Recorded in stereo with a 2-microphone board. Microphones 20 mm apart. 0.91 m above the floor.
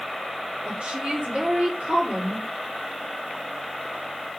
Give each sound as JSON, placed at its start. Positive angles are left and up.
{"t": 0.7, "sound": "a woman speaking", "side_deg": -70, "distance_m": 3.0}